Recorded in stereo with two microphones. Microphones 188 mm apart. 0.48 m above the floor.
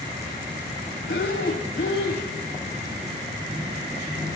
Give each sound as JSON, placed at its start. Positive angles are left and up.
{"t": 1.1, "sound": "breathing", "side_deg": 80, "distance_m": 1.6}